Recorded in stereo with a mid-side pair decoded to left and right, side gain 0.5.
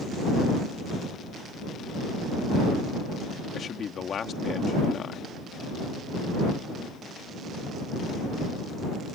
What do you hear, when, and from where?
3.5 s a man speaking: 45° left